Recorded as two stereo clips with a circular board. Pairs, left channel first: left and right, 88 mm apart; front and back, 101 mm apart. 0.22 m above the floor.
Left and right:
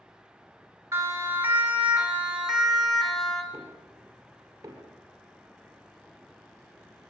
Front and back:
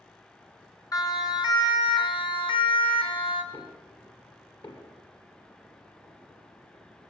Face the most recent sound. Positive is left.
turn(degrees=-35)